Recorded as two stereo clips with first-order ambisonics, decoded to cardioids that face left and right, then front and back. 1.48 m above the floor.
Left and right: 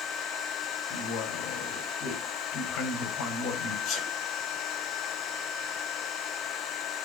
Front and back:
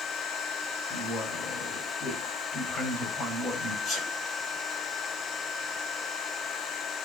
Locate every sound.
0.9 s a man speaking: 60° left, 6 m
3.9 s a sneeze: 50° left, 7.5 m